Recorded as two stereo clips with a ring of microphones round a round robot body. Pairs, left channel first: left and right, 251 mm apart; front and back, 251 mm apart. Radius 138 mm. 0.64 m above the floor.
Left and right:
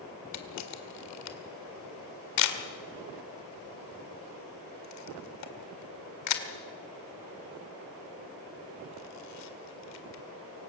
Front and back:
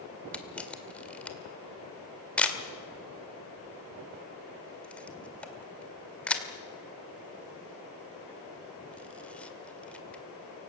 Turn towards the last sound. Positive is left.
turn(degrees=85)